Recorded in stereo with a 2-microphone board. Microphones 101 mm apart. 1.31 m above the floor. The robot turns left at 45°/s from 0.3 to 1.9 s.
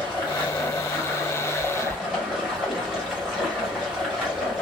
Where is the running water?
65° left, 1.8 m; by 4.6 s 10° right, 1.8 m.